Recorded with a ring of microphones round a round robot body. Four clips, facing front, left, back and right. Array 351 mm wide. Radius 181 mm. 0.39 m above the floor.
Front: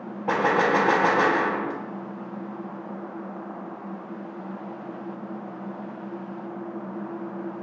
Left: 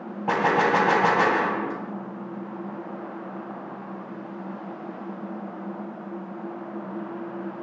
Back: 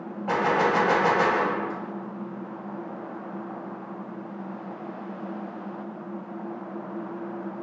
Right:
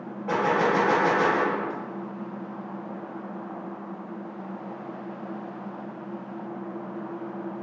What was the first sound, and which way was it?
A gunshot, 70° left.